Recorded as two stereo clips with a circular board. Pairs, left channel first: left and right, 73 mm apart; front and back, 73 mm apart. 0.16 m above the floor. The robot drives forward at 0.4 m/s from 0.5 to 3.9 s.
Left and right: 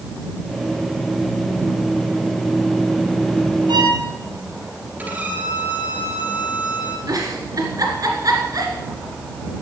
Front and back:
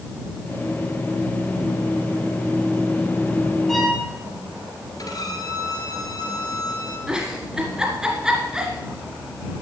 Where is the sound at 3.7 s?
90° right, 3.5 m.